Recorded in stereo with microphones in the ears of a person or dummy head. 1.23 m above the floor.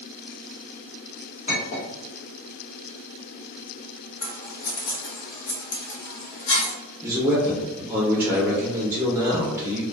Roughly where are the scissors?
Left.